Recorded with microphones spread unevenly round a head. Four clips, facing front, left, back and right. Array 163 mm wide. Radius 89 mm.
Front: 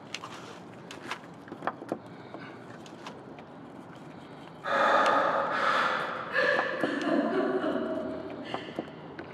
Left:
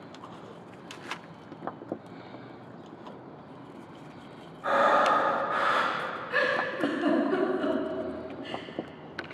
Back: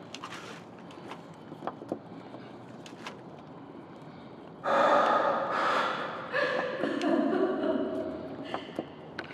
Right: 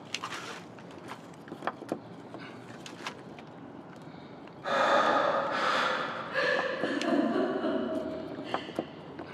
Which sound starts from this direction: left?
A giggle, at 6.3 s.